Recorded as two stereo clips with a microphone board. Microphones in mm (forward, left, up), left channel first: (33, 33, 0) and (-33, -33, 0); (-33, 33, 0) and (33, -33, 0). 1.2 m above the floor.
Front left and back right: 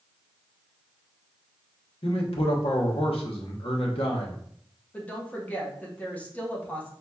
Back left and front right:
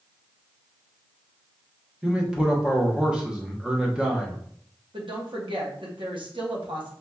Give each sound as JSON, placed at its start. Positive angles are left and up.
{"t": 2.0, "sound": "a man speaking", "azimuth_deg": 35, "distance_m": 1.1}
{"t": 4.9, "sound": "a woman speaking", "azimuth_deg": -25, "distance_m": 1.3}